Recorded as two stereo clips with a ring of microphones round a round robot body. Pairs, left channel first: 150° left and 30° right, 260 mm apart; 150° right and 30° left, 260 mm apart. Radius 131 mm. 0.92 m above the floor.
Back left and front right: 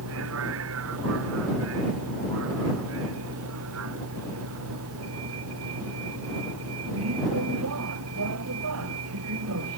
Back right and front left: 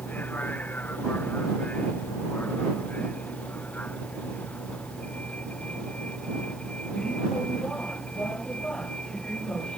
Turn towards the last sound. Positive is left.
turn(degrees=-65)